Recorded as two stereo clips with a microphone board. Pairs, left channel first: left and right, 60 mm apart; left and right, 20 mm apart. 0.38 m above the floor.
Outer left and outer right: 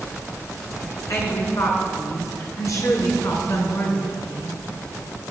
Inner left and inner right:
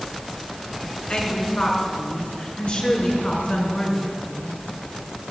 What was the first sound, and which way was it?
A woman speaking, 60° left (ahead or behind).